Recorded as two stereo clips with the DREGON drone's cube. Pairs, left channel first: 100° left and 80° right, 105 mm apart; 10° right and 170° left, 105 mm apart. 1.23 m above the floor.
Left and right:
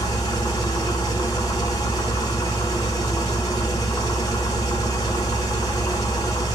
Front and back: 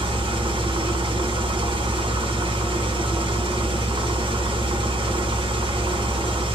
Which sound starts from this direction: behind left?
An engine running, at 0.0 s.